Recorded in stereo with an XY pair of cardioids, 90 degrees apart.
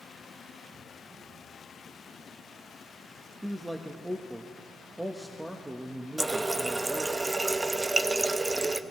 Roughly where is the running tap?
Ahead right.